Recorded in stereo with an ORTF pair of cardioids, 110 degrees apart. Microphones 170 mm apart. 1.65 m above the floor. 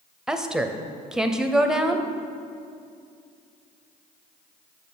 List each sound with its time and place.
0.3 s a woman speaking: 5° right, 0.5 m